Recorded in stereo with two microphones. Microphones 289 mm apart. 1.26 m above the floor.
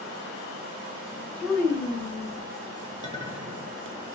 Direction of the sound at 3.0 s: 25° right (ahead or behind).